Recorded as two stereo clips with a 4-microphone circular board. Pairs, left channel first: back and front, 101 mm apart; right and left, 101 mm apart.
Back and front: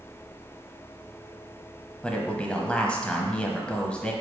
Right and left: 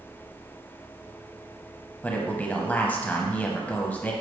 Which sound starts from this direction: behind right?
A man speaking, at 2.0 s.